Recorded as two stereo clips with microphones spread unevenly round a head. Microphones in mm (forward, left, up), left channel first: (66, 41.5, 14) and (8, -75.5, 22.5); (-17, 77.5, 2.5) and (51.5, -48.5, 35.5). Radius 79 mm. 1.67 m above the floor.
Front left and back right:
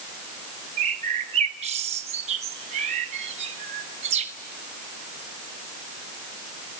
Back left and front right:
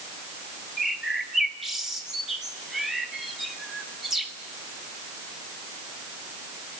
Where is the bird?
135° right, 1.3 m.